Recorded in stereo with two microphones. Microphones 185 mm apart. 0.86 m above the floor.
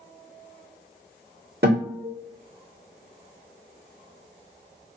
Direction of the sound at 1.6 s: 70° right (ahead or behind).